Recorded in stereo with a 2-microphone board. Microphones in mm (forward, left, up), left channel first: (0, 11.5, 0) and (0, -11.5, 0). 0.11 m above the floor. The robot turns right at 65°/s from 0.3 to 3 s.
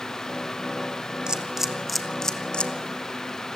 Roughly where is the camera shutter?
Right.